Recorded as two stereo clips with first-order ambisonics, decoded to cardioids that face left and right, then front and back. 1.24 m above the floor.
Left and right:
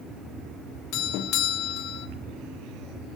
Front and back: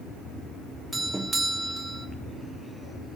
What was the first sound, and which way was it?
A doorbell, 100° left.